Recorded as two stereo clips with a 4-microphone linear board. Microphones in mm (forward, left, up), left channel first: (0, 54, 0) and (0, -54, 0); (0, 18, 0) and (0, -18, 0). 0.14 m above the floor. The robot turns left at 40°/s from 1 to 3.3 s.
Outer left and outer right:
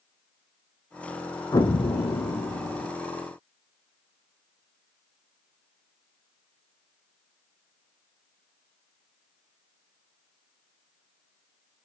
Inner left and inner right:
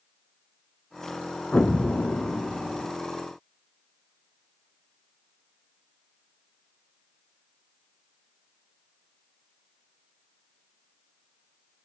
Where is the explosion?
135° left, 0.7 m; by 2.9 s 80° left, 0.7 m.